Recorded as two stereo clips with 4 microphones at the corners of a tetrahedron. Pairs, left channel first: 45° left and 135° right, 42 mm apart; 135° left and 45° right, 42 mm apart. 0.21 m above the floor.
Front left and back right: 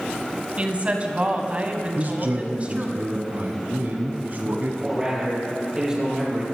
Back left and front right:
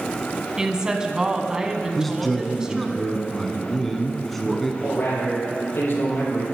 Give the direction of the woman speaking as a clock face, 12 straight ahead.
3 o'clock.